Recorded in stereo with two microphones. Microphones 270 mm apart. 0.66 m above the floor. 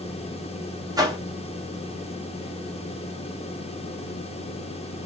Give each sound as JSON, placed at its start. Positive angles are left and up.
{"t": 1.0, "sound": "a whoosh", "side_deg": -15, "distance_m": 1.0}